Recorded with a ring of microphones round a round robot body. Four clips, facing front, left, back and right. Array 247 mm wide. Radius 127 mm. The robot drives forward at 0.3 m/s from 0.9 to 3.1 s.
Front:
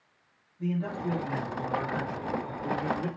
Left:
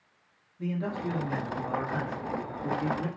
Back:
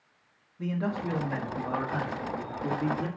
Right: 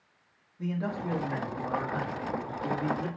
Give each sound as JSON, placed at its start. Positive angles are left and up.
{"t": 0.6, "sound": "a man speaking", "azimuth_deg": -170, "distance_m": 1.1}